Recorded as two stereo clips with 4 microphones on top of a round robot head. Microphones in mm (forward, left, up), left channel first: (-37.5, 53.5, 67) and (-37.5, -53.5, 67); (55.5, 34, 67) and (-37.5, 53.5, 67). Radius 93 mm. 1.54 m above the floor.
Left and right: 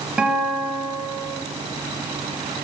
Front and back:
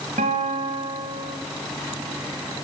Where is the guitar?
170° right, 2.5 m.